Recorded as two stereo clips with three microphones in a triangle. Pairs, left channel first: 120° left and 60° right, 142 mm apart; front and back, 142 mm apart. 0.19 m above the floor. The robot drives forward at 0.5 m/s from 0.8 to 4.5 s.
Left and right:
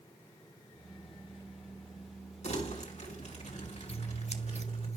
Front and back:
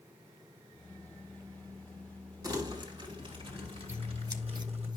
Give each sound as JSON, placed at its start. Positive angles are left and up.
{"t": 2.4, "sound": "crumpling", "azimuth_deg": 125, "distance_m": 2.0}
{"t": 3.9, "sound": "scissors", "azimuth_deg": 110, "distance_m": 1.0}